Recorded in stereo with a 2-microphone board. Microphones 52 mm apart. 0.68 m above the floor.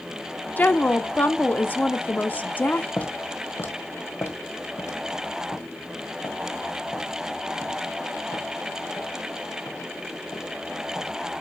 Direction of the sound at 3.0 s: 25° left (ahead or behind).